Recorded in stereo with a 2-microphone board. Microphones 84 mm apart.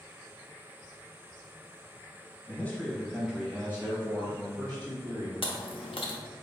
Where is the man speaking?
25° left (ahead or behind), 0.9 m; by 5.3 s 50° right (ahead or behind), 1.4 m.